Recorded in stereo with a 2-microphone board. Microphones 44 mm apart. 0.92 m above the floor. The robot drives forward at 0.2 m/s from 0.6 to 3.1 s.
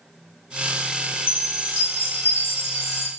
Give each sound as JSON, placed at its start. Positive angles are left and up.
{"t": 1.3, "sound": "a chime", "side_deg": 75, "distance_m": 3.0}